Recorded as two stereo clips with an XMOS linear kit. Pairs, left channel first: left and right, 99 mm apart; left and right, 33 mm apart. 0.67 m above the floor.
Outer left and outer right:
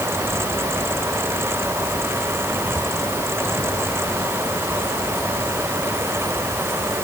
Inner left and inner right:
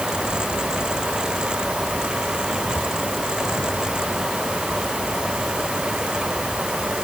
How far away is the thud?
No thud in this recording.